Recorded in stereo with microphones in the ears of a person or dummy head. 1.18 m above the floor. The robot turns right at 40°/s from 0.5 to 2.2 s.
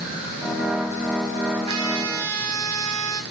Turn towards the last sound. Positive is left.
turn(degrees=-70)  # may be behind; listen again after turning